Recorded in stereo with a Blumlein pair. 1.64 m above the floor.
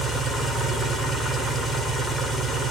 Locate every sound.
0.0 s an engine running: 5° right, 0.8 m